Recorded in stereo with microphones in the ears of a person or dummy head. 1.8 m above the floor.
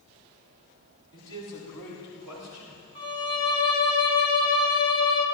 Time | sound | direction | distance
1.1 | a man speaking | 25° left (ahead or behind) | 4.5 m
3.0 | a violin | 35° left (ahead or behind) | 3 m